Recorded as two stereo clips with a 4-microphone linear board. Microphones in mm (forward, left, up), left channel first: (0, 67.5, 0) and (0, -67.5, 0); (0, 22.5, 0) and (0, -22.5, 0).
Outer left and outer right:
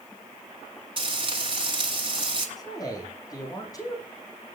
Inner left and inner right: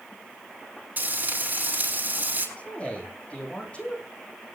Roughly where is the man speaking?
Left.